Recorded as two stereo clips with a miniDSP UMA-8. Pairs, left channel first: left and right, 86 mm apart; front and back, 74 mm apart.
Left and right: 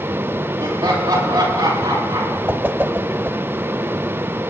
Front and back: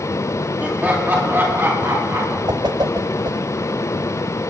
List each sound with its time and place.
0.6 s laughter: 115° right, 4 m; by 2.4 s 130° right, 6.5 m
2.5 s a whoosh: 155° right, 0.6 m